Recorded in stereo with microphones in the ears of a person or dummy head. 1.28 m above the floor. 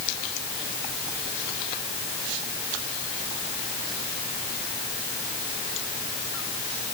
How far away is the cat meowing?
No cat meowing in this recording.